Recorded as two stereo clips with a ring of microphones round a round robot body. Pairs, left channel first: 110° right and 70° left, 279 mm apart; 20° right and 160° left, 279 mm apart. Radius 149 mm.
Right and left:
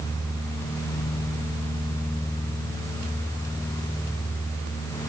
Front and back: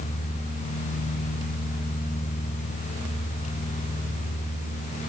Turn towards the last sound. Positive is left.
No sound to turn to.